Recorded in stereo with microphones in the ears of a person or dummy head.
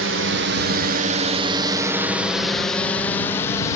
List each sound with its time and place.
0.0 s a drone: 65° right (ahead or behind); by 3.8 s 15° left (ahead or behind)